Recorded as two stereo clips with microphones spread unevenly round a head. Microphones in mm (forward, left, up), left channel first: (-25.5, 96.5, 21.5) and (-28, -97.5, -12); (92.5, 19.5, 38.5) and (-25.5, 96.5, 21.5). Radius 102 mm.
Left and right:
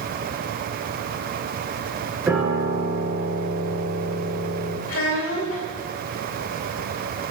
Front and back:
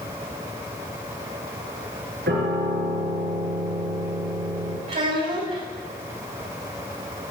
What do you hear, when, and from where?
2.3 s a piano: 175° right, 6 m
4.9 s a child speaking: 110° left, 3.5 m